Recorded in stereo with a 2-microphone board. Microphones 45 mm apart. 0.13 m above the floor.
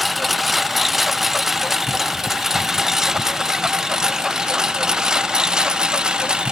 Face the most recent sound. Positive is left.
turn(degrees=-20)  # may be behind; listen again after turning